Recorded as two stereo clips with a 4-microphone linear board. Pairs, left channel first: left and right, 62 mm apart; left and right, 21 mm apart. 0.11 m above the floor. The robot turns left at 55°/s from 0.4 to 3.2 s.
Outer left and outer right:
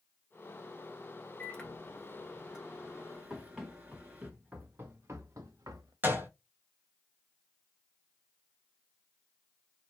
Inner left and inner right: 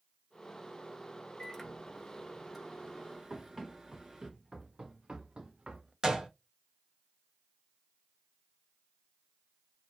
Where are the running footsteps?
Centre (ahead or behind), 1.6 m; by 5.9 s 85° right, 1.0 m.